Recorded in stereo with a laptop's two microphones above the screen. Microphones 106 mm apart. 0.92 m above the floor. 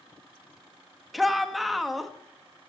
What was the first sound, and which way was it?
A shout, centre (ahead or behind).